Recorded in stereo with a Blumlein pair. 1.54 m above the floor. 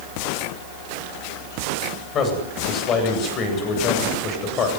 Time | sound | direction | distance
2.1 | a man speaking | 30° left | 8.5 m